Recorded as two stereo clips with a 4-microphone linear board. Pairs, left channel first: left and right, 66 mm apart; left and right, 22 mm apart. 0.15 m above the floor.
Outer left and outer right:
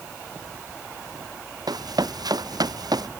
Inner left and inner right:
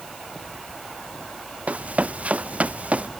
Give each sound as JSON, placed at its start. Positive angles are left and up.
{"t": 1.7, "sound": "running footsteps", "side_deg": -80}